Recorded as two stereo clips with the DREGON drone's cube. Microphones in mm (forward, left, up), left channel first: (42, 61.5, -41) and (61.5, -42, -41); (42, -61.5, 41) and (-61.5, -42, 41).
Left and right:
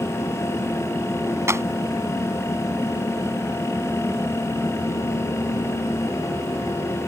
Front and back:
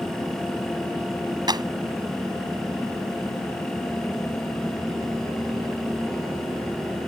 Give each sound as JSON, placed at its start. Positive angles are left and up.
{"t": 1.5, "sound": "a clap", "azimuth_deg": -145}